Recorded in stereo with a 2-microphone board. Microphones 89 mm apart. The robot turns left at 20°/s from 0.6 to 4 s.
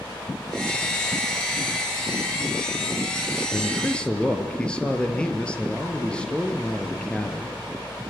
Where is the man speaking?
20° left (ahead or behind), 3 m; by 7.6 s 10° left (ahead or behind), 3 m.